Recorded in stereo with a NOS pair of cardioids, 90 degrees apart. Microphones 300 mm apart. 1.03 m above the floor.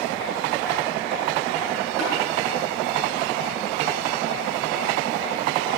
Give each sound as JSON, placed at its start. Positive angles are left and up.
{"t": 2.0, "sound": "tapping", "azimuth_deg": -65, "distance_m": 7.0}